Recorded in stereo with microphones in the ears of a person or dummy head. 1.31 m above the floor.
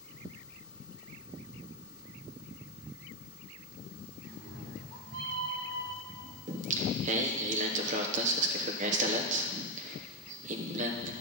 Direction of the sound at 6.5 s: 40° right (ahead or behind).